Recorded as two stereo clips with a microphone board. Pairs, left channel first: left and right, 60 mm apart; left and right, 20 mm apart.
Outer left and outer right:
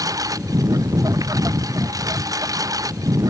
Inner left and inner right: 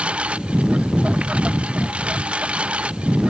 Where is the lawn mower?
80° right.